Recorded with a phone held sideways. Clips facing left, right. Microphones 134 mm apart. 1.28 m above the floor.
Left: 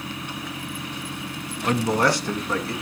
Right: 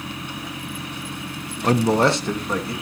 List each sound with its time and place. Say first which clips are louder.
1.6 s a man speaking: right 4 dB; 40° right (ahead or behind), 0.7 m; by 2.7 s 15° right (ahead or behind), 2 m